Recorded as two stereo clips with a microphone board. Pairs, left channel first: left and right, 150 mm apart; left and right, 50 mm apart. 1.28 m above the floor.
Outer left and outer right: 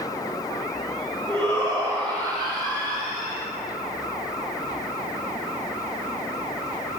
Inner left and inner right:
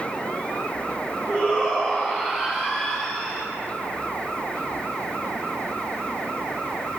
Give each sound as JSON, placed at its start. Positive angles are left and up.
{"t": 1.3, "sound": "a shout", "side_deg": -35, "distance_m": 9.0}